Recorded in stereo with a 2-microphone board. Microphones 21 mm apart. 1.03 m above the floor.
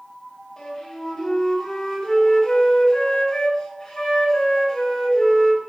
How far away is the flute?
About 4 m.